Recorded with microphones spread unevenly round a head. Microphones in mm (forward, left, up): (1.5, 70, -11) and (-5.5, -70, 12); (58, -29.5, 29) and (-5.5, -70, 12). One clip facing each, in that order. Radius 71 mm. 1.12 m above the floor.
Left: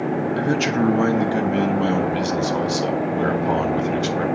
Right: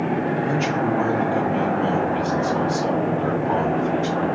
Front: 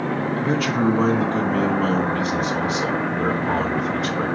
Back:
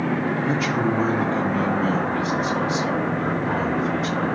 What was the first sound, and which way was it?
A man speaking, 95° left.